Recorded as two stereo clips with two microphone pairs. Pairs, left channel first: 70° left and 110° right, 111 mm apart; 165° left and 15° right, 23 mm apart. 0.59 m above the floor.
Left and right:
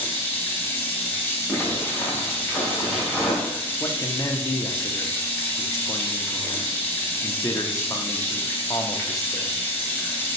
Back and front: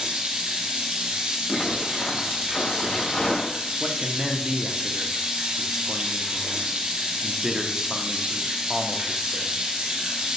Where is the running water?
5° right, 1.9 m.